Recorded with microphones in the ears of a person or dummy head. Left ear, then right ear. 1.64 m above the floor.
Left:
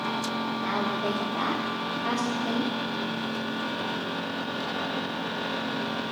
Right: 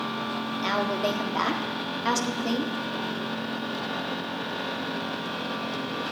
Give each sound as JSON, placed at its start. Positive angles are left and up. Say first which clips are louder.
{"t": 0.6, "sound": "a woman speaking", "louder": "right 4 dB", "side_deg": -85, "distance_m": 1.5}